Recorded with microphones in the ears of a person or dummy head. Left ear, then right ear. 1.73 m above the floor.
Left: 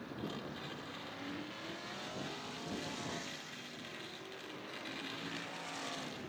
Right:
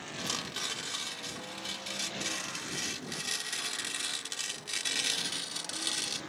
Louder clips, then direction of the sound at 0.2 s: Right 11 dB; 80° right.